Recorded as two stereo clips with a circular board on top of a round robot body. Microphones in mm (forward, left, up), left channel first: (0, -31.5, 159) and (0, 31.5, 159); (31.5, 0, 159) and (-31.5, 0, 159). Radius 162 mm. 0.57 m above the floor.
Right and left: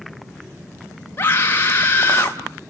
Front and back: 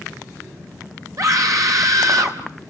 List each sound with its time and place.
1.2 s a scream: 150° right, 4 m